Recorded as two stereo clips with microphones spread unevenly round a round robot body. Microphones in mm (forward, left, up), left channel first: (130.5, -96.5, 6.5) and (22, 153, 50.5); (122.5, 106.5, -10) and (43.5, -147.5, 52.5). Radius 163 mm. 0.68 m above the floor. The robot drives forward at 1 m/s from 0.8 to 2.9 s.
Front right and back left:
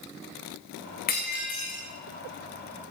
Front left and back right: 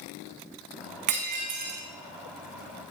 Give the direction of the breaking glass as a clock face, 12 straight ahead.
4 o'clock.